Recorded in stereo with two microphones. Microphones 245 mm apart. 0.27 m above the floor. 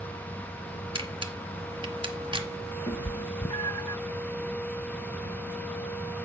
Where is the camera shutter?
20° right (ahead or behind), 1.2 m.